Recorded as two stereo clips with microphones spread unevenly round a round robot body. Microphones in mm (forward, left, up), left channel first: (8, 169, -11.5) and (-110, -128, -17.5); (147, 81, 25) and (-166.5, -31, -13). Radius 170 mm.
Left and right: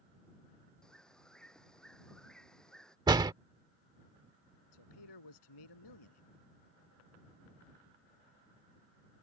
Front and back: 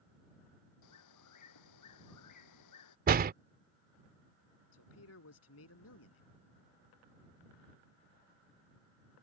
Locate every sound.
0.8 s a bird: 20° right
3.1 s a door slam: straight behind
4.7 s a man speaking: 70° left